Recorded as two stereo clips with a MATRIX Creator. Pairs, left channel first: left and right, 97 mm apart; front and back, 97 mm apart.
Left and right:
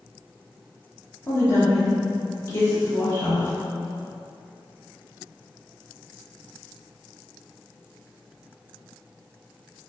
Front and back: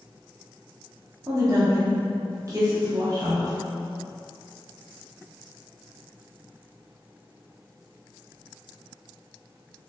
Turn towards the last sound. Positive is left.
turn(degrees=135)